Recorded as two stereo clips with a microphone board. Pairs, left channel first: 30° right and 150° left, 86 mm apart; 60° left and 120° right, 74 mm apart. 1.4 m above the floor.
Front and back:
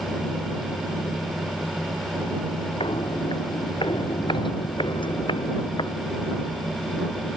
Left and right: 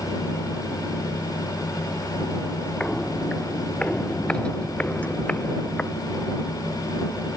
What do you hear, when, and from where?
2.8 s footsteps: 20° right; by 6.0 s 10° right